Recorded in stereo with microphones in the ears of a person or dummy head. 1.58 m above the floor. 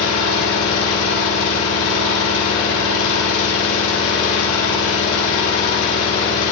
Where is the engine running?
75° left (ahead or behind), 3.5 m.